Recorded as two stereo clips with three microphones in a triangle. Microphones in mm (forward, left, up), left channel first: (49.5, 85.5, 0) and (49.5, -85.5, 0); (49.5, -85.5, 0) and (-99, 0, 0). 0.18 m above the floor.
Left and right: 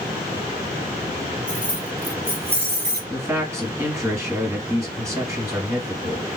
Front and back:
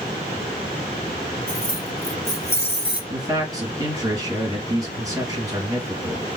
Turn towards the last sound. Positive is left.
turn(degrees=-155)